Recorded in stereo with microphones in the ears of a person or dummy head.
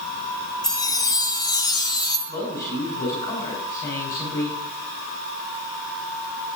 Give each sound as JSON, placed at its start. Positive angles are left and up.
{"t": 0.6, "sound": "a chime", "side_deg": 20, "distance_m": 0.6}
{"t": 2.3, "sound": "a man speaking", "side_deg": 20, "distance_m": 5.0}